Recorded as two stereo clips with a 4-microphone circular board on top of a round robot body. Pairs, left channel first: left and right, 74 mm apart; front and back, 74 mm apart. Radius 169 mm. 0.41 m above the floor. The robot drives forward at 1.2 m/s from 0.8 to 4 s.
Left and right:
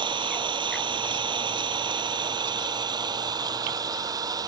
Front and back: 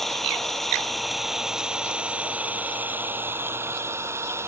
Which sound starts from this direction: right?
An engine running, at 0.0 s.